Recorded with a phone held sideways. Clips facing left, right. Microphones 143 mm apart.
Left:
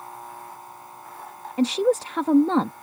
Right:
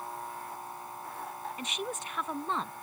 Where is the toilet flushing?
I don't hear a toilet flushing.